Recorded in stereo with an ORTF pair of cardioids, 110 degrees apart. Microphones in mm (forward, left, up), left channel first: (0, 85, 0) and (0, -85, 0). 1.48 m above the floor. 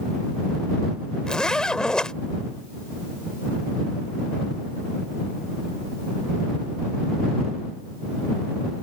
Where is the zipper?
5° left.